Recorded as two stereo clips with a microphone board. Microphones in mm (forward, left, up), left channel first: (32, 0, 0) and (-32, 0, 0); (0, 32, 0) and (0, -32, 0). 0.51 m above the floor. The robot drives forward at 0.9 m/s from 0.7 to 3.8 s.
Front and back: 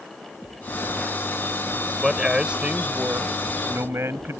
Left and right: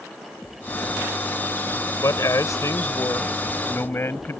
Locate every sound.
2.0 s a man speaking: 95° left; by 4.4 s 140° left